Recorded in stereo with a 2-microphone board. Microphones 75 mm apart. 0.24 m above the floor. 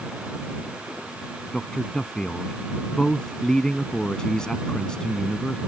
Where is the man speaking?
10° left (ahead or behind).